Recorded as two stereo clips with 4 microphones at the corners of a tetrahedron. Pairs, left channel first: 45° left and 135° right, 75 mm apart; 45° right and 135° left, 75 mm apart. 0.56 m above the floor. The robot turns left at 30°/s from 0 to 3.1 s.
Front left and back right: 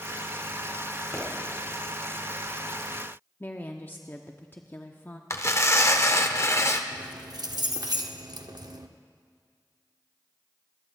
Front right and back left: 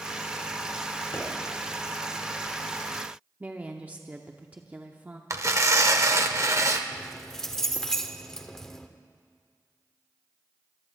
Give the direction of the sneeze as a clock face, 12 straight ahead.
No sneeze in this recording.